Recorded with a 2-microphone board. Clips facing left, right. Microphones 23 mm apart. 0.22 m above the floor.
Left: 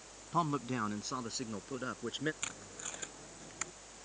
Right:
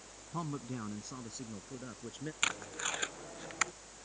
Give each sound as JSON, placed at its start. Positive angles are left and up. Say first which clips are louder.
{"t": 0.3, "sound": "a man speaking", "louder": "left 7 dB", "side_deg": 45}
{"t": 2.4, "sound": "tape being pulled", "louder": "right 9 dB", "side_deg": -35}